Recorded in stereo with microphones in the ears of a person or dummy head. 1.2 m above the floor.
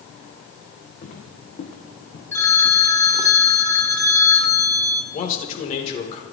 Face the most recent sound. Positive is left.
turn(degrees=40)  # may be behind; listen again after turning